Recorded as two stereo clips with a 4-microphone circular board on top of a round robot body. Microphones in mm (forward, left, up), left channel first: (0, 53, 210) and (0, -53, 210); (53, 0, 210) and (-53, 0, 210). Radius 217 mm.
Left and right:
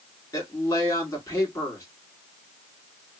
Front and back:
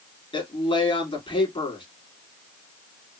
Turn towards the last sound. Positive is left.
turn(degrees=30)